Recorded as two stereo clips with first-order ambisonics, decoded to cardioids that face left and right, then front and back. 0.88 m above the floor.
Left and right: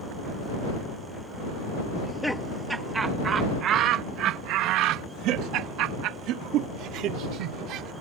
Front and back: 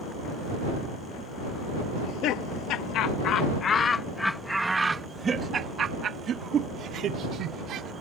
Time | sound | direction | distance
1.9 | laughter | 5° left | ?